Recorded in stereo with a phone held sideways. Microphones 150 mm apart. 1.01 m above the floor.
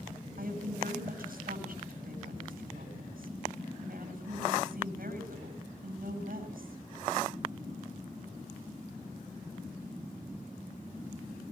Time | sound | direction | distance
0.4 | a woman speaking | 70° right (ahead or behind) | 9 m